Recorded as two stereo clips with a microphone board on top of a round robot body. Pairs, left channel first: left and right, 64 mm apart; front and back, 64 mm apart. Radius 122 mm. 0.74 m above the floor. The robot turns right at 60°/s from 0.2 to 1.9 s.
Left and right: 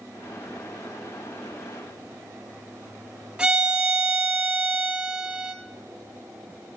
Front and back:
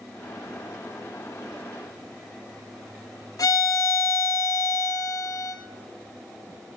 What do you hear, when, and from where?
3.4 s a violin: 20° right, 0.9 m